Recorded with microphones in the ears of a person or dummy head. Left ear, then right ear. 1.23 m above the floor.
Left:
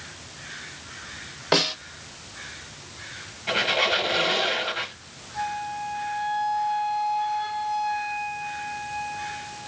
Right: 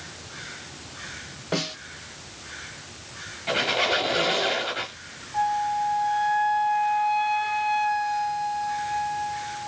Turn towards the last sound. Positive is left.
turn(degrees=-20)  # may be behind; listen again after turning